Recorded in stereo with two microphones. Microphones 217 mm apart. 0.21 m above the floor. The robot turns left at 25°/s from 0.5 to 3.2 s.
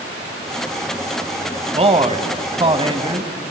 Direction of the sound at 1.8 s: 30° right (ahead or behind).